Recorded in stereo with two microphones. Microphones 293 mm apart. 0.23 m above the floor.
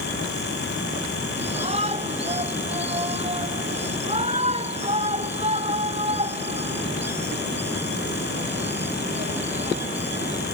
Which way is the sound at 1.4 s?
20° right (ahead or behind).